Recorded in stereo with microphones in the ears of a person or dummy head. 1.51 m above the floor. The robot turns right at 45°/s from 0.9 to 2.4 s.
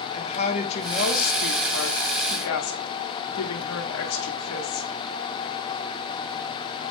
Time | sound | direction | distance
0.1 | a woman speaking | 35° left | 0.8 m